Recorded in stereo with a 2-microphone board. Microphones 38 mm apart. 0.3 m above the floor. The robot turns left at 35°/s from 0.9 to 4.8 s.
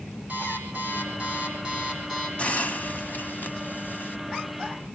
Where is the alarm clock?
140° right, 8.5 m; by 2.3 s 175° left, 8.5 m.